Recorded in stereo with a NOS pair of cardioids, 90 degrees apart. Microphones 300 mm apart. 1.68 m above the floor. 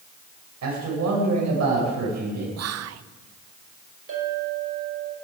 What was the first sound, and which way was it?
A man speaking, 65° right.